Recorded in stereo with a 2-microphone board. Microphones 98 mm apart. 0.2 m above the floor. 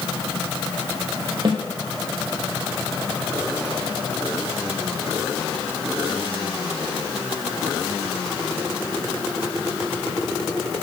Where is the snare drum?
55° right (ahead or behind), 3 m.